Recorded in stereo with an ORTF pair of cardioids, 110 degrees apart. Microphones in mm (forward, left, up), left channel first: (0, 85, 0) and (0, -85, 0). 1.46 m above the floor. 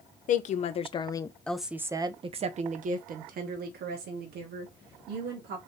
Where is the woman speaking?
50° left, 1.0 m; by 5.6 s 75° right, 2.5 m.